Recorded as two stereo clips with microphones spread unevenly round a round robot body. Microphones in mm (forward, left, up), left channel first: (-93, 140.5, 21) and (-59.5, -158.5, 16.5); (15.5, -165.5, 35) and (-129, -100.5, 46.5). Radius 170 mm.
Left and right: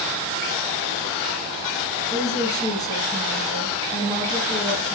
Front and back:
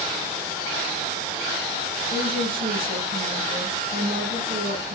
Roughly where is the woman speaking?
Behind.